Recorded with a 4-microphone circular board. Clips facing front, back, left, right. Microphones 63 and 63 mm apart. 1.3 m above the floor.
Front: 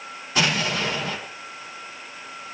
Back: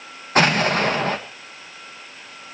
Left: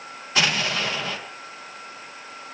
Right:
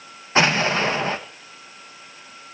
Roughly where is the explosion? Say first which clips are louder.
Back 6 dB, right 5 dB; behind right.